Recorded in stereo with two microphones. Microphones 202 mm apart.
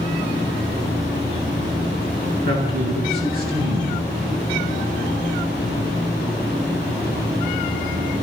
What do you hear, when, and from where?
2.5 s a man speaking: 50° right (ahead or behind), 8 m